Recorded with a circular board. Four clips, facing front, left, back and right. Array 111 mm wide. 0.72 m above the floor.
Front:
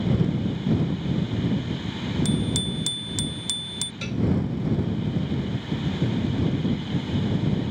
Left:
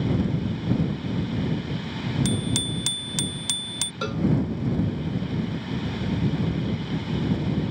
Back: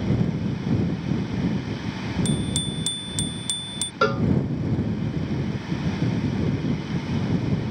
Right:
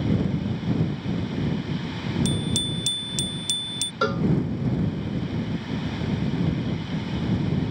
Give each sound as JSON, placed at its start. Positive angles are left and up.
{"t": 2.2, "sound": "a bicycle bell", "azimuth_deg": 90}
{"t": 4.0, "sound": "a cowbell", "azimuth_deg": -155}